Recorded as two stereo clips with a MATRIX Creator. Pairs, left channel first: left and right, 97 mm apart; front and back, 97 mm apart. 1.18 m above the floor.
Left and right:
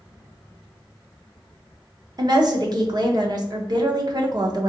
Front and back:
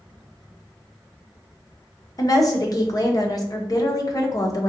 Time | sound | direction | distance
2.2 | a woman speaking | 50° right | 0.8 m